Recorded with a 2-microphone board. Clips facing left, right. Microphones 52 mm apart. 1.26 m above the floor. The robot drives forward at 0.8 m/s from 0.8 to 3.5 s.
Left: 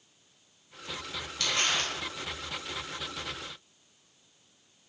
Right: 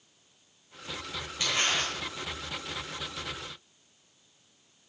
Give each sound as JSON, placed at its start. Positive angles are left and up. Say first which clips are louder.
{"t": 1.4, "sound": "crumpling", "louder": "right 1 dB", "side_deg": -20, "distance_m": 4.5}